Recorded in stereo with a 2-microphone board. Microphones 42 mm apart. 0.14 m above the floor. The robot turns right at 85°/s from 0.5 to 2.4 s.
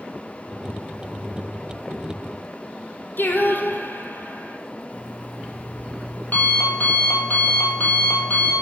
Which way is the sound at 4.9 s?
45° left (ahead or behind).